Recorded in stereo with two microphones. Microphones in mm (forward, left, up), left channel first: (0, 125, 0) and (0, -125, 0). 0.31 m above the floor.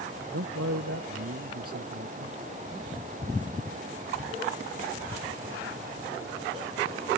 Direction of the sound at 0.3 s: 75° right (ahead or behind).